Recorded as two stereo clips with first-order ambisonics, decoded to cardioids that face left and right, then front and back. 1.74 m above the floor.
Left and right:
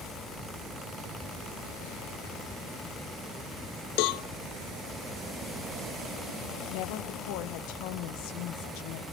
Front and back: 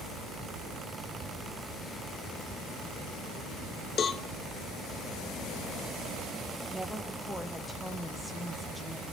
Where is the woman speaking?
90° left, 2 m.